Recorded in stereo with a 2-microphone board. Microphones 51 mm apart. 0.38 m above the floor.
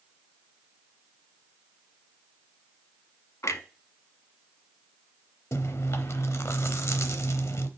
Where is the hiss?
I don't hear a hiss.